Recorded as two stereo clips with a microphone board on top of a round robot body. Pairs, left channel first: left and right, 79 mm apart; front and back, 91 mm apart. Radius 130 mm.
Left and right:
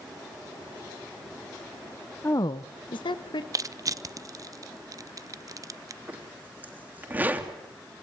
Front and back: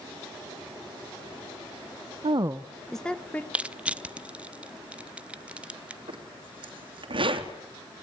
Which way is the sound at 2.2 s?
155° left.